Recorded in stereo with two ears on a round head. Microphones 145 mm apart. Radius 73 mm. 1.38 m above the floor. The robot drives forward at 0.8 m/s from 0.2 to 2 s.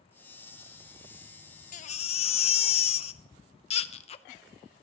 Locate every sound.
1.7 s a baby crying: 50° left (ahead or behind), 0.6 m; by 4.2 s 40° left (ahead or behind), 0.7 m